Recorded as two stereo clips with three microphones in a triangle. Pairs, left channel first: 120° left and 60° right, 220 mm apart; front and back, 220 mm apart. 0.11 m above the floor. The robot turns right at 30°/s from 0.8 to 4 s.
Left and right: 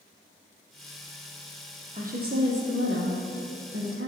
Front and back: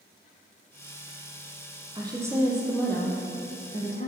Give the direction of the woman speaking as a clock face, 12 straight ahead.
4 o'clock.